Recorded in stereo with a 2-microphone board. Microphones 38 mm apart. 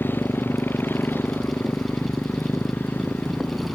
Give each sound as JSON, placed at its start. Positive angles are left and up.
{"t": 0.0, "sound": "a motorcycle", "side_deg": 70}